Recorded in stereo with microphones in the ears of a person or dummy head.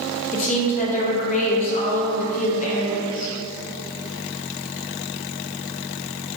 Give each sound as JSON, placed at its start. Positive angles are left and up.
{"t": 0.3, "sound": "a woman speaking", "side_deg": 40, "distance_m": 0.7}